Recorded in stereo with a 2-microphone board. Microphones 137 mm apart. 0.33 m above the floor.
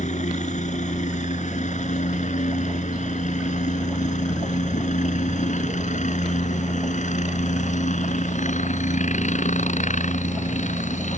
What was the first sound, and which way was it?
A helicopter, 60° left (ahead or behind).